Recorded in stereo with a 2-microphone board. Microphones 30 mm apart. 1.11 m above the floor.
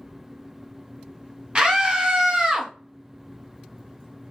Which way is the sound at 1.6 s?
30° right (ahead or behind).